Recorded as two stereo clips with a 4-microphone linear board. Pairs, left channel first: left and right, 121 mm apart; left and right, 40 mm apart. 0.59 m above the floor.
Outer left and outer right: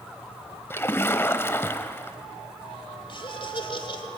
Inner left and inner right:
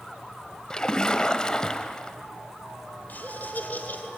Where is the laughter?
50° left (ahead or behind), 3 m.